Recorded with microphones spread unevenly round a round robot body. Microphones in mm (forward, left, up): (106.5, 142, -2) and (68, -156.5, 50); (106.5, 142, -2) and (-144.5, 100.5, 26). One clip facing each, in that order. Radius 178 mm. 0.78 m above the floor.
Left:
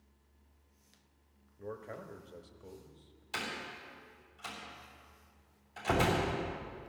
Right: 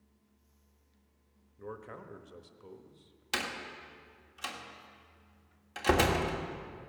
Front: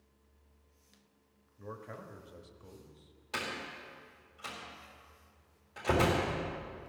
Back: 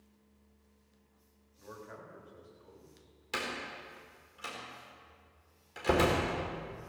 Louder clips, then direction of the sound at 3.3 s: Right 3 dB, back 1 dB; 105° right.